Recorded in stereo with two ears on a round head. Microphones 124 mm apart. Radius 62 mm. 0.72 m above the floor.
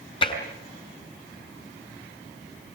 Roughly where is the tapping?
Left.